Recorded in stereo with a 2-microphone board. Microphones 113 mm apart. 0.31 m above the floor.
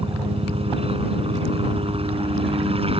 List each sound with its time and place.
0.0 s a helicopter: 60° right (ahead or behind)